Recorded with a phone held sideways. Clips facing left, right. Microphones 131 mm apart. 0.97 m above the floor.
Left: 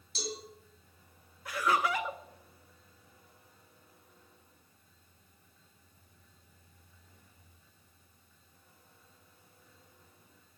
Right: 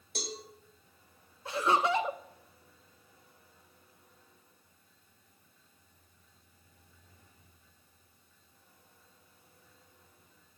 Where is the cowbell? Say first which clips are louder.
Left 1 dB; 55° right (ahead or behind), 3 m.